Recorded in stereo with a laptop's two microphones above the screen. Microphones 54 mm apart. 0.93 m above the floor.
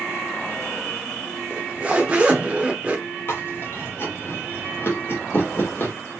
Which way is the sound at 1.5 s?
25° right (ahead or behind).